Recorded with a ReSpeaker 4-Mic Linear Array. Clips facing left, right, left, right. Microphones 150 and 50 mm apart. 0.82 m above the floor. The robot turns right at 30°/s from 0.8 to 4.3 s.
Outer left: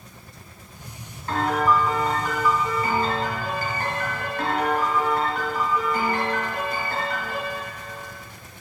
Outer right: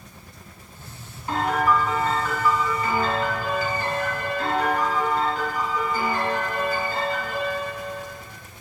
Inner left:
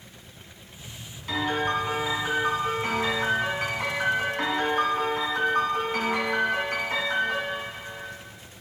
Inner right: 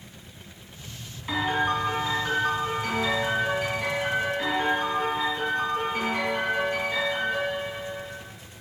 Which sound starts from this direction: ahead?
A piano, at 1.3 s.